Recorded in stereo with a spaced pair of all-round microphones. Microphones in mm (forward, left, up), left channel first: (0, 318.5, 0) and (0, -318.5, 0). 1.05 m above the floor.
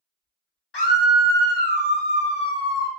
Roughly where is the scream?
Left.